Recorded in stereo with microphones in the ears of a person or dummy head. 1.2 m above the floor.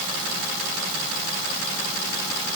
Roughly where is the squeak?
I don't hear a squeak.